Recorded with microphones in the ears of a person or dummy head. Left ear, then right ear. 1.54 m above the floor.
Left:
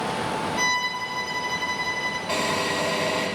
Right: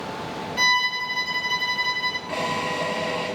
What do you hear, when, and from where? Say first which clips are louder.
0.6 s a violin: right 6 dB; 20° right (ahead or behind), 1.5 m
2.3 s a drill: left 1 dB; 15° left (ahead or behind), 8 m